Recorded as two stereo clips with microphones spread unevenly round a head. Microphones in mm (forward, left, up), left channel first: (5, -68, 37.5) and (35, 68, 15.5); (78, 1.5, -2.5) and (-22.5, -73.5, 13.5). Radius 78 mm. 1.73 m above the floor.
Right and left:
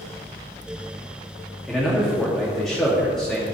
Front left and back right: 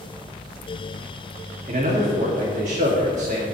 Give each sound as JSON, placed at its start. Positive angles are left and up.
{"t": 1.7, "sound": "a man speaking", "azimuth_deg": 175, "distance_m": 3.0}